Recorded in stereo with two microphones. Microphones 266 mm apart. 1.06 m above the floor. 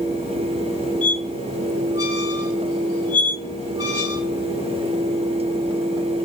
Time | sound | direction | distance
1.0 | a squeak | 55° left (ahead or behind) | 0.9 m